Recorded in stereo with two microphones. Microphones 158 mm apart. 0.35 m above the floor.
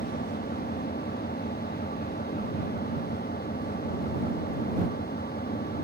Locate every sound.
0.0 s an engine running: 75° left (ahead or behind)